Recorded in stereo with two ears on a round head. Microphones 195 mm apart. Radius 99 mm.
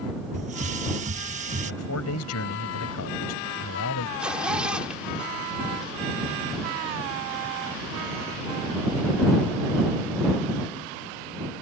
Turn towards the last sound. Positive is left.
turn(degrees=-5)  # may be behind; listen again after turning